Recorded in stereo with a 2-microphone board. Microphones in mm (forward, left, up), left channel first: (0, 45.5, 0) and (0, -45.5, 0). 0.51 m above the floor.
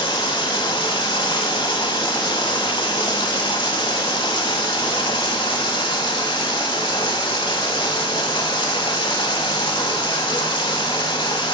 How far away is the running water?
About 0.8 m.